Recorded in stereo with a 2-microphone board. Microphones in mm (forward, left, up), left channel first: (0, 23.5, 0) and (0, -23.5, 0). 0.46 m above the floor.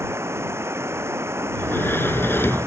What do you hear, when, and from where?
0.0 s running water: 70° right (ahead or behind)
1.5 s a sliding door: 55° left (ahead or behind)